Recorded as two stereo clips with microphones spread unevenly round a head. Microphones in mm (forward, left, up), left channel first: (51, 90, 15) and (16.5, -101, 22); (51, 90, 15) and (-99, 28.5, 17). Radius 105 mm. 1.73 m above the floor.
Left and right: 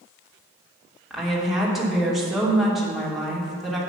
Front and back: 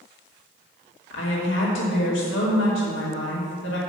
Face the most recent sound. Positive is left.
turn(degrees=-10)